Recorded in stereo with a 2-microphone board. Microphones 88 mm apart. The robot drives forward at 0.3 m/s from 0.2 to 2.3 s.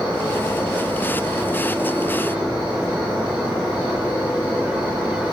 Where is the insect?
65° right (ahead or behind), 1.8 m; by 5.3 s 85° right, 1.7 m.